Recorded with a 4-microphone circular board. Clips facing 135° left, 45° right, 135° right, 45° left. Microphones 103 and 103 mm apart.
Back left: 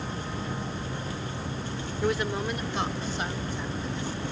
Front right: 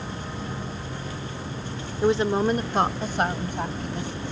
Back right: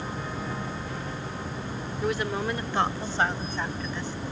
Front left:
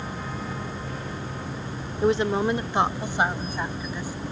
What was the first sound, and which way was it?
A woman speaking, 5° left.